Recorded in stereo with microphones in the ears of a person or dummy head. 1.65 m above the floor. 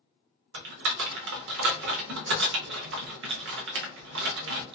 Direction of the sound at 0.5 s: 65° right (ahead or behind).